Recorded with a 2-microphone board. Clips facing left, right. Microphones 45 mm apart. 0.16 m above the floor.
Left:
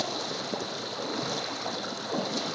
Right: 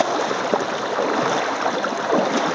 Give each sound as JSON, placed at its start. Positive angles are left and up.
{"t": 0.0, "sound": "running water", "side_deg": -60, "distance_m": 0.8}